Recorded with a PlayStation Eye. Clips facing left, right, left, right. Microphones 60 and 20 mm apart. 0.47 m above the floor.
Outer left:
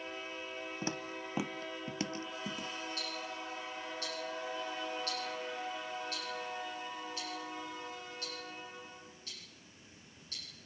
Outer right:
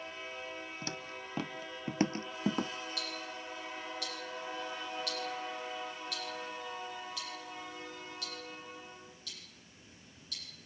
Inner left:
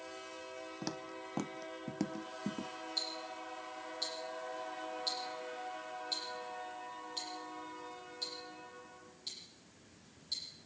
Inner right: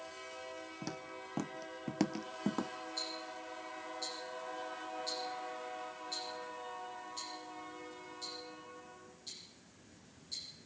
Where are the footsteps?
25° left (ahead or behind), 1.1 m; by 2.7 s 50° right (ahead or behind), 0.9 m.